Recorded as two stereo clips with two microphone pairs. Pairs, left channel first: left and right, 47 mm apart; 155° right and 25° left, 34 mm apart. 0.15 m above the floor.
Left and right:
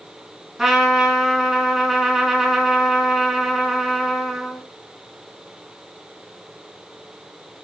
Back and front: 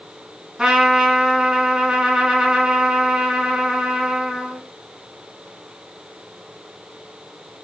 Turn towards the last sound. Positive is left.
turn(degrees=-25)